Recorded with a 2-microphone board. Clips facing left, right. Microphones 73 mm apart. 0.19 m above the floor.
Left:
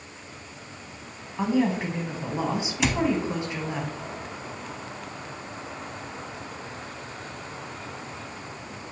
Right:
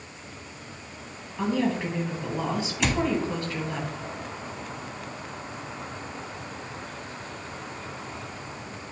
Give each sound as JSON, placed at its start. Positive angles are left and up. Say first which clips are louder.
{"t": 1.4, "sound": "a woman speaking", "louder": "left 2 dB", "side_deg": 20, "distance_m": 1.1}
{"t": 2.8, "sound": "a cupboard door", "louder": "left 1 dB", "side_deg": 0, "distance_m": 0.5}